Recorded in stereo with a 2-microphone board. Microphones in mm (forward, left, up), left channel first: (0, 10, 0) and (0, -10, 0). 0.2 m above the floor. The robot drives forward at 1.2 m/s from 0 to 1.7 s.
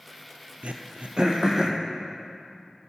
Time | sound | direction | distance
0.6 | throat clearing | 75° right (ahead or behind) | 0.7 m